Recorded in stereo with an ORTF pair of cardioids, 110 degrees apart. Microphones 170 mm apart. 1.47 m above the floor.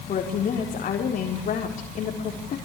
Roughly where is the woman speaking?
Ahead left.